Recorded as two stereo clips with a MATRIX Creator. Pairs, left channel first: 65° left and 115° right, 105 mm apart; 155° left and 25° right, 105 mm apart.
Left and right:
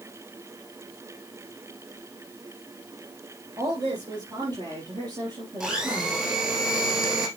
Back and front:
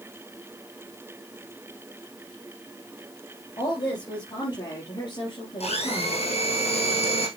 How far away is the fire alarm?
No fire alarm in this recording.